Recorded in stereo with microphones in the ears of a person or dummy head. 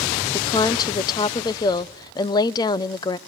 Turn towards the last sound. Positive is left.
turn(degrees=25)  # may be behind; listen again after turning